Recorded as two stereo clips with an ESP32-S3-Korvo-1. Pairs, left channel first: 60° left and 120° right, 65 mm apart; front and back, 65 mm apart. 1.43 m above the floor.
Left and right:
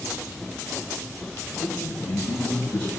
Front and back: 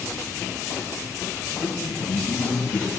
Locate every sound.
1.6 s a man speaking: 5° right, 9 m